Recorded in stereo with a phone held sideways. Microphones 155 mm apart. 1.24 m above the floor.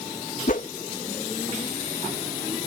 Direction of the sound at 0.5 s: 60° left (ahead or behind).